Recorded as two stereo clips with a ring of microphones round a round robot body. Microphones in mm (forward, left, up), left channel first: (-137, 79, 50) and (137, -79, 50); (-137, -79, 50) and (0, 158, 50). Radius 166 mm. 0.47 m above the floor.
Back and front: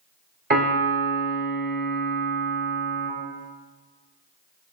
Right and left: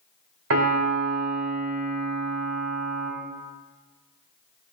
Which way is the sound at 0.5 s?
25° left.